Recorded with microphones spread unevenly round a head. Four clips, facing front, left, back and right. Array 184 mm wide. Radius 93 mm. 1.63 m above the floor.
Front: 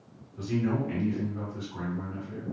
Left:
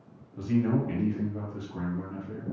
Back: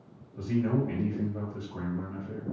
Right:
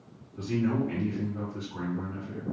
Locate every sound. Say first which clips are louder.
0.4 s a man speaking: left 1 dB, back 1 dB; 120° left, 1.2 m